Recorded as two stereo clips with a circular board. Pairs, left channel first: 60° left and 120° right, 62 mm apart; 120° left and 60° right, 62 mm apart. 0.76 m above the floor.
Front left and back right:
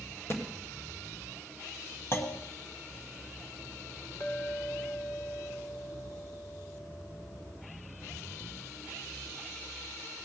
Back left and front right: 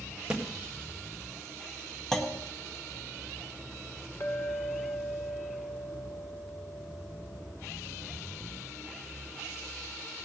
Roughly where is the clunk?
Ahead left.